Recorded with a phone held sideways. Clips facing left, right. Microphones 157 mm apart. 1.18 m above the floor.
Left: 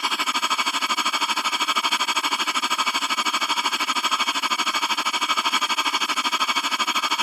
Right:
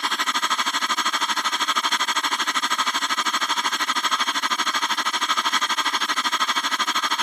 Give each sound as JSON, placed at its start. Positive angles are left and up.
{"t": 0.0, "sound": "a machine running", "side_deg": 5}